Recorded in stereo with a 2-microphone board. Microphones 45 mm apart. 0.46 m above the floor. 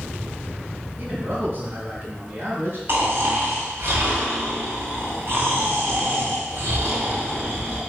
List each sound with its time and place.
1.0 s a man speaking: 45° right (ahead or behind), 4 m
2.9 s snoring: 55° right (ahead or behind), 2.5 m